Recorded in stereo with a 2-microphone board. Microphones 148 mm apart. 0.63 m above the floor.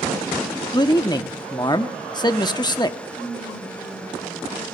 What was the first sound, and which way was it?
A man speaking, 25° left (ahead or behind).